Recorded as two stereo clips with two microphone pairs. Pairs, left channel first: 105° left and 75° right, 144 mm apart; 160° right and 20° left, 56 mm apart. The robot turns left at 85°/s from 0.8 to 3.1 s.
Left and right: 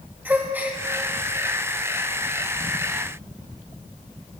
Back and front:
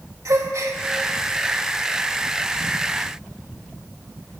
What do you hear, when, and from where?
0.2 s a gasp: 5° left, 1.5 m